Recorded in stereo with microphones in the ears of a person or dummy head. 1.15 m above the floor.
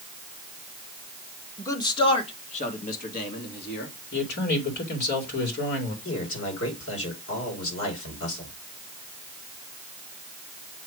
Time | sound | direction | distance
1.6 | a man speaking | 15° left (ahead or behind) | 1.4 m
4.1 | a man speaking | 60° left (ahead or behind) | 2.5 m
6.0 | a man speaking | 80° left | 4.5 m